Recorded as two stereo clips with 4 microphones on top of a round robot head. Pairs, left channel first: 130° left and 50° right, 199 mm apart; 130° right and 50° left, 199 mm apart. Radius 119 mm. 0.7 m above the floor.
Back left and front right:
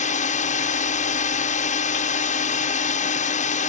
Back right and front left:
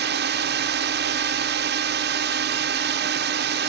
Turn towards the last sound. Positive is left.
turn(degrees=80)